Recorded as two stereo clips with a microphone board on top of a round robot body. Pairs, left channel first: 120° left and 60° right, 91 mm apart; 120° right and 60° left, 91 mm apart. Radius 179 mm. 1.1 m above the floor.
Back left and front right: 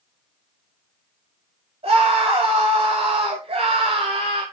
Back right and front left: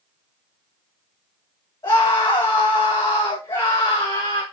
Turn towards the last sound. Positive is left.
turn(degrees=-75)